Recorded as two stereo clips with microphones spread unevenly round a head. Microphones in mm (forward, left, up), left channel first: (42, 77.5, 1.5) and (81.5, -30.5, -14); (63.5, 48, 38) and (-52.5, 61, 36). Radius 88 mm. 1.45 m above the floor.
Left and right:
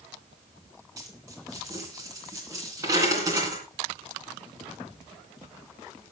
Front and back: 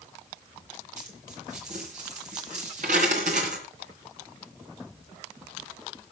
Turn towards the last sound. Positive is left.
turn(degrees=-140)